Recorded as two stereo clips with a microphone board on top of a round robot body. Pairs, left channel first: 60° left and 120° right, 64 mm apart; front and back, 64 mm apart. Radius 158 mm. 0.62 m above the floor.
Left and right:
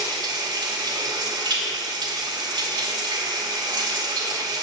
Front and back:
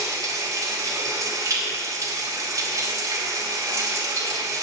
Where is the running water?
135° right, 1.2 m.